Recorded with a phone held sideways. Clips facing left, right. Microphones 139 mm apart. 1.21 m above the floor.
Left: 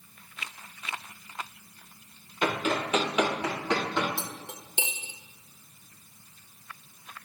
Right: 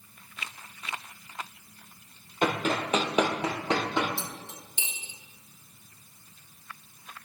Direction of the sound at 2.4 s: 45° right (ahead or behind).